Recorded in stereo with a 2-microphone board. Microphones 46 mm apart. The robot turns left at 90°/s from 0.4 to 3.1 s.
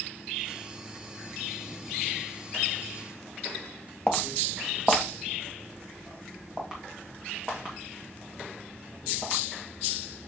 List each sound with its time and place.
4.1 s footsteps: 20° left (ahead or behind), 1.0 m; by 9.4 s 20° right (ahead or behind), 5 m